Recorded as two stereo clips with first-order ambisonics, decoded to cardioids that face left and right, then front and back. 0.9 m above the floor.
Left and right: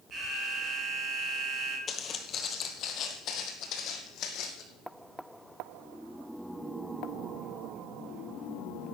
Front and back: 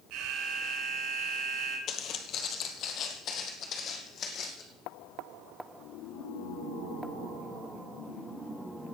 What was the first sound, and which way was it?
An alarm, 155° right.